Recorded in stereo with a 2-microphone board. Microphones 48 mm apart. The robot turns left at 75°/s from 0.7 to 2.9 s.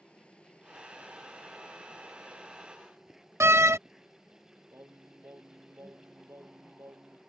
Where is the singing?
70° right (ahead or behind).